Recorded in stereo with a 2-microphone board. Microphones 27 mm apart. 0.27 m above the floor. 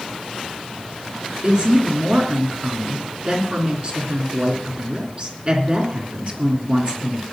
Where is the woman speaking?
40° right (ahead or behind), 3 m.